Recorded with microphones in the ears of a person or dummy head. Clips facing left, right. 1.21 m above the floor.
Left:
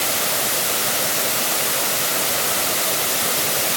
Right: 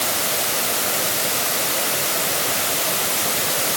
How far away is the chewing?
I don't hear chewing.